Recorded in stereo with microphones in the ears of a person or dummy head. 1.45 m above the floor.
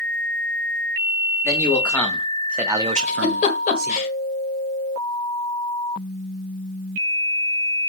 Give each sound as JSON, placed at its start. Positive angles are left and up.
{"t": 1.4, "sound": "a man speaking", "side_deg": 15, "distance_m": 2.5}
{"t": 3.0, "sound": "a giggle", "side_deg": 45, "distance_m": 1.6}